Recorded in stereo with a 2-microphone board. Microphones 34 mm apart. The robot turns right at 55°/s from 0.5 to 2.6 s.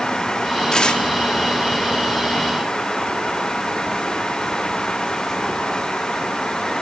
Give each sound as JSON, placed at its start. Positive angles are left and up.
{"t": 0.7, "sound": "tearing paper", "side_deg": 20, "distance_m": 2.0}